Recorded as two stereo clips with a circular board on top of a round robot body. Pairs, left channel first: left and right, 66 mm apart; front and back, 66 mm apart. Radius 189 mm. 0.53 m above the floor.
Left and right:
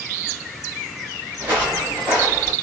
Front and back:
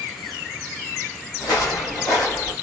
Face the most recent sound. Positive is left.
turn(degrees=-25)